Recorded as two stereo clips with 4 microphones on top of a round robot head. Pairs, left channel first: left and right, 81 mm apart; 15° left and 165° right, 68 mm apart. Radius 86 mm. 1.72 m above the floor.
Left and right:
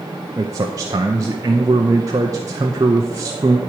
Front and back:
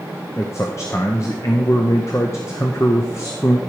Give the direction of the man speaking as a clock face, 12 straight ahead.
2 o'clock.